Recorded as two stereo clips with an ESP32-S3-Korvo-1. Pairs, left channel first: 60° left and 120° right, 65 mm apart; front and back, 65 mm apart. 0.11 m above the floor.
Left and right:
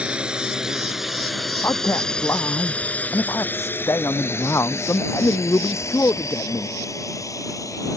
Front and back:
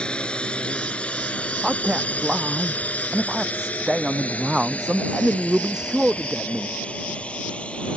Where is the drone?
60° right; by 8.0 s 70° left.